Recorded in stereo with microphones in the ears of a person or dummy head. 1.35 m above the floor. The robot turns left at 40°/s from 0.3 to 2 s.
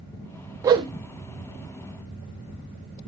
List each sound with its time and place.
0.6 s a whoosh: 20° right (ahead or behind), 0.9 m; by 0.9 s 30° right (ahead or behind), 0.9 m